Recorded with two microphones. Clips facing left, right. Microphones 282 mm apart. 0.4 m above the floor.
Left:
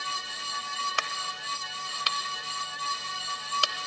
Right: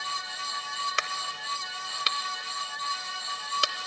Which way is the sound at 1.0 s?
25° right (ahead or behind).